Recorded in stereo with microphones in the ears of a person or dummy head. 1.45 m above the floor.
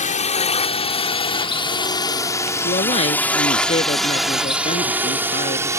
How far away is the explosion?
I don't hear an explosion.